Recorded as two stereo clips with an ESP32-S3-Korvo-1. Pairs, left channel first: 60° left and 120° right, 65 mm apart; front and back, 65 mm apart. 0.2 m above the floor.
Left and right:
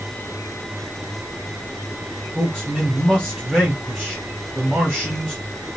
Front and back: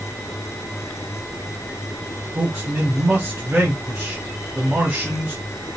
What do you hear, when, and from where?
2.4 s a man speaking: 145° left, 1.3 m